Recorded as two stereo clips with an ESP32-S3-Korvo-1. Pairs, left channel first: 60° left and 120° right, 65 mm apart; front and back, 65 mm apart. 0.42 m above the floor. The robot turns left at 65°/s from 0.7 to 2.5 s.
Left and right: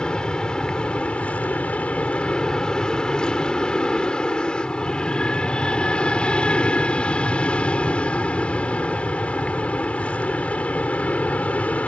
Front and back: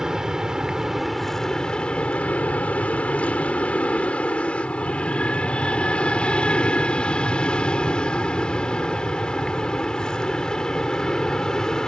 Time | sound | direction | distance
0.0 | an aircraft | 110° left | ?